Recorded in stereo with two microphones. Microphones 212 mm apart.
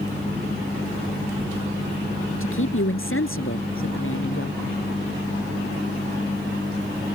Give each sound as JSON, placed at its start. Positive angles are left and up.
{"t": 2.4, "sound": "a man speaking", "side_deg": 75}